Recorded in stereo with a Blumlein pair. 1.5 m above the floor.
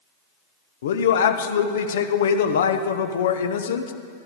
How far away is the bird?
I don't hear a bird.